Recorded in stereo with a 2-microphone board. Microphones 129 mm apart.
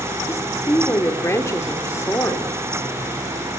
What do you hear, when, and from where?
0.3 s a woman speaking: 20° left (ahead or behind), 2.5 m